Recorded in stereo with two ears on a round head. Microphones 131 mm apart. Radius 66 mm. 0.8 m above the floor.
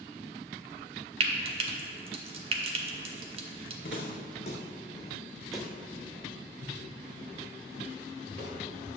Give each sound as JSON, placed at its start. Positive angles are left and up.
{"t": 1.2, "sound": "frying", "side_deg": -40, "distance_m": 1.0}
{"t": 3.8, "sound": "footsteps", "side_deg": 65, "distance_m": 2.0}